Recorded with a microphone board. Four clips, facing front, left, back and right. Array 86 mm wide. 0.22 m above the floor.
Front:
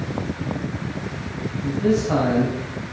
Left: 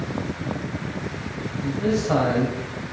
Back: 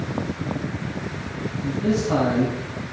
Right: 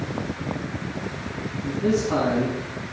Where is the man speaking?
80° left, 3.5 m.